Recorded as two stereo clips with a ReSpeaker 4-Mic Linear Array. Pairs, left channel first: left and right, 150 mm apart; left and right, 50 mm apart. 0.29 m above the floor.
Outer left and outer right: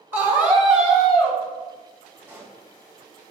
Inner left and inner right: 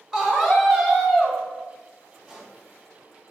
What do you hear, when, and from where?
0.1 s a scream: 15° right (ahead or behind), 1.3 m; by 1.4 s 5° left (ahead or behind), 1.5 m
2.2 s a pop: 15° right (ahead or behind), 1.2 m